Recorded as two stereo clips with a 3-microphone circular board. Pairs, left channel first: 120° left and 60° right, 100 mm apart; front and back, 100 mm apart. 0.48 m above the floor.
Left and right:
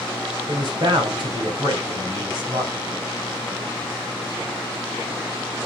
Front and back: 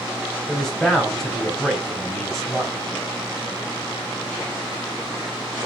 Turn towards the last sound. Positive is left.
turn(degrees=-85)